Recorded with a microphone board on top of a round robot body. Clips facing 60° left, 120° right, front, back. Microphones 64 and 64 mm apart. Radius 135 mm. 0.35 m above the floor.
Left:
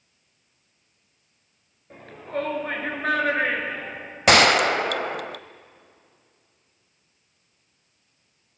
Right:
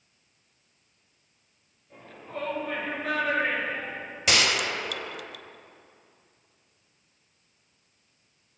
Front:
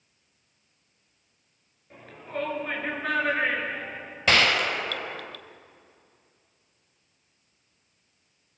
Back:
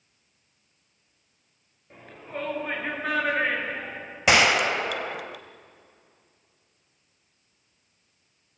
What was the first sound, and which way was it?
A shout, 95° left.